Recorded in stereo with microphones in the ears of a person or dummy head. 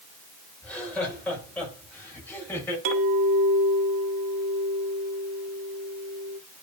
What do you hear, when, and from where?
0.6 s laughter: 5° left (ahead or behind), 6 m; by 2.8 s 10° left (ahead or behind), 7 m
2.9 s a clink: 75° right (ahead or behind), 2.5 m